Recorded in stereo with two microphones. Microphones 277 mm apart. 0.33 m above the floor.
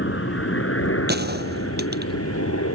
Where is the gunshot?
35° right (ahead or behind).